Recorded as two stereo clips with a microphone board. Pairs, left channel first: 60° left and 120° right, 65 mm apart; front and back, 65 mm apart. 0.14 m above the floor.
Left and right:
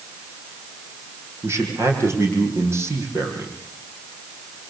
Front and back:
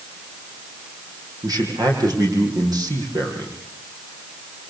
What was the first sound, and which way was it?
A man speaking, 165° right.